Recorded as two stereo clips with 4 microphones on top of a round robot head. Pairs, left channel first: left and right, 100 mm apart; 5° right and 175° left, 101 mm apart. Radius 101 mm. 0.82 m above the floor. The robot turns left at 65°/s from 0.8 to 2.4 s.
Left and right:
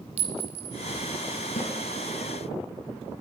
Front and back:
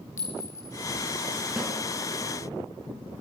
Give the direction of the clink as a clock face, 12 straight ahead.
2 o'clock.